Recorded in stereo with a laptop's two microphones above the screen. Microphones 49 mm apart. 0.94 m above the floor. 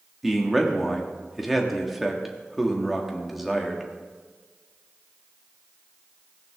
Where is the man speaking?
5° right (ahead or behind), 1.3 m.